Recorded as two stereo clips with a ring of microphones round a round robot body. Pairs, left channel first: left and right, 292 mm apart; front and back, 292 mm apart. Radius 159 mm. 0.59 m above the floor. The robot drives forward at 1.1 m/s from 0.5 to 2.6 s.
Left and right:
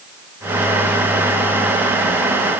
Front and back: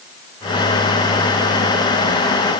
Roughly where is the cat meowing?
I don't hear a cat meowing.